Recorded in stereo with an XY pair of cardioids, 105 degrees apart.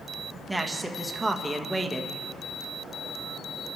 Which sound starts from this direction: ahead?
A man speaking, at 0.5 s.